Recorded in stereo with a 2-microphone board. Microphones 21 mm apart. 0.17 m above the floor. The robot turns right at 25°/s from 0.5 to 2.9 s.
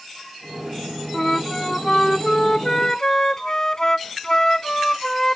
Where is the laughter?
No laughter in this recording.